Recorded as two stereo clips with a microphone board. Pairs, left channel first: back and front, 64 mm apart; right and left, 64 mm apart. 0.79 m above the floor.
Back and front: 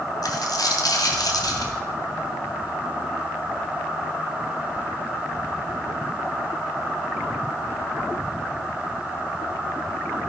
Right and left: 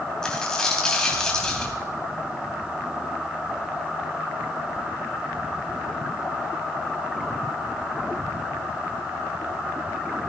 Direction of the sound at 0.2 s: 170° right.